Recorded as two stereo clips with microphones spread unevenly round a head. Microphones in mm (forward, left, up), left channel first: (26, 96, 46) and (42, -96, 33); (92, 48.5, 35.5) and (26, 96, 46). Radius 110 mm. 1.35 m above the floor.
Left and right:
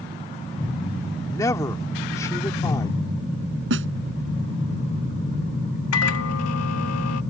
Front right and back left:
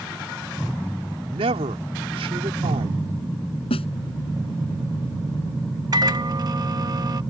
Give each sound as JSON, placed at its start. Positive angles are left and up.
{"t": 1.2, "sound": "a man speaking", "azimuth_deg": 170}
{"t": 3.7, "sound": "a snare drum", "azimuth_deg": -65}
{"t": 5.9, "sound": "a microwave", "azimuth_deg": 105}